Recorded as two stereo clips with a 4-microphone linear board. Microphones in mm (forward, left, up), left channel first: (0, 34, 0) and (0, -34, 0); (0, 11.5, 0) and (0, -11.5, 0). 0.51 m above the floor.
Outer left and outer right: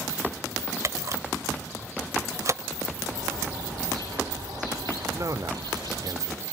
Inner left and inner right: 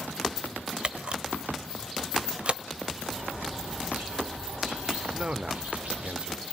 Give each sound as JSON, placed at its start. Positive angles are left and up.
{"t": 0.8, "sound": "a camera shutter", "side_deg": -50, "distance_m": 1.0}
{"t": 3.0, "sound": "a bird", "side_deg": -90, "distance_m": 8.0}
{"t": 5.1, "sound": "a man speaking", "side_deg": -55, "distance_m": 1.2}